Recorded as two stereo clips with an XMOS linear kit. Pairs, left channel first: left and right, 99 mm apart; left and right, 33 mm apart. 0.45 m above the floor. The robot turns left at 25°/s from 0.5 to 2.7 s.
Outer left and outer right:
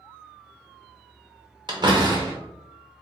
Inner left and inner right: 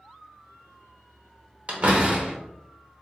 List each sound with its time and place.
1.7 s a door slam: 50° right (ahead or behind), 0.8 m; by 2.3 s 45° right (ahead or behind), 0.8 m